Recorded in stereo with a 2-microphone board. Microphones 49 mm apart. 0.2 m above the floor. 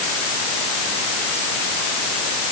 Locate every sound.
Only background noise.